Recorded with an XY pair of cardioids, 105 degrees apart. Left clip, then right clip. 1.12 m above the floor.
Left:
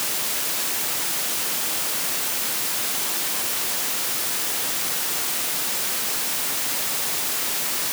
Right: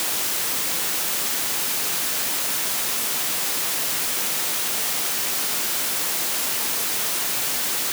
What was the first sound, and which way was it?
Only background noise.